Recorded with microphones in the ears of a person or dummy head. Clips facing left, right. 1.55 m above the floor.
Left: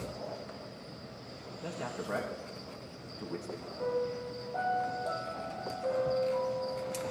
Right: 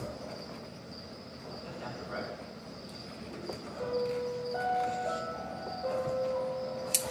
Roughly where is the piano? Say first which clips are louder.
Right 1 dB; centre.